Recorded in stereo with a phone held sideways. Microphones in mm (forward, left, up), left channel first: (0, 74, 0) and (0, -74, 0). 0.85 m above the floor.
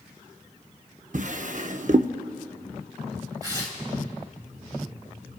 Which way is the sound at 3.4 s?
25° right (ahead or behind).